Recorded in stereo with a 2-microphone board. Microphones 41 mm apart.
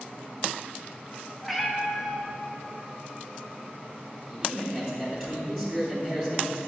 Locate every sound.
1.4 s a cat meowing: centre (ahead or behind), 0.7 m
4.3 s a man speaking: centre (ahead or behind), 1.0 m